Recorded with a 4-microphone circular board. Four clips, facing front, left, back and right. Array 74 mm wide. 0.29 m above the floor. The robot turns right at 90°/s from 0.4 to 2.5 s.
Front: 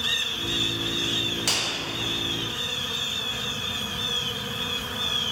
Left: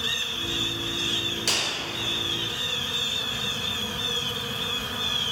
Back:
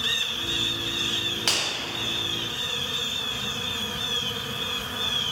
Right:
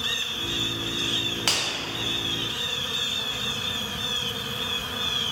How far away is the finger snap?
About 1.0 m.